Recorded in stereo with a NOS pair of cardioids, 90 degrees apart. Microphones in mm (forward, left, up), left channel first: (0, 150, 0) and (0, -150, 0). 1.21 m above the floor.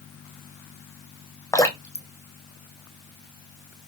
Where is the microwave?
No microwave in this recording.